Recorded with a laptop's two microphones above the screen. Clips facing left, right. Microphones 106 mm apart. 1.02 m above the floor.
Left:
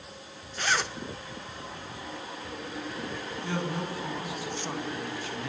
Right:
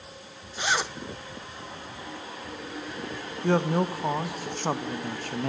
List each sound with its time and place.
0.6 s a zipper: 10° right (ahead or behind), 1.0 m
3.4 s a man speaking: 50° right (ahead or behind), 1.4 m